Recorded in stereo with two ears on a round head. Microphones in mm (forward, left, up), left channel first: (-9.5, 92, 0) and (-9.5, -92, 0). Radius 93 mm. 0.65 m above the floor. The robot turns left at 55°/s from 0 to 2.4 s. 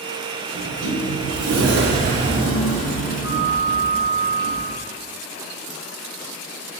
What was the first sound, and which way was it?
A sliding door, 55° right.